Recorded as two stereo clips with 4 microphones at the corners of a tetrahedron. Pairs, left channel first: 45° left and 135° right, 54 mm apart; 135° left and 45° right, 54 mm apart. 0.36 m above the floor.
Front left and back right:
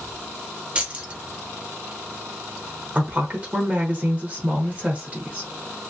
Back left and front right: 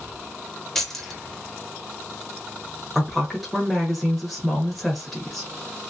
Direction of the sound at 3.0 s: 140° right.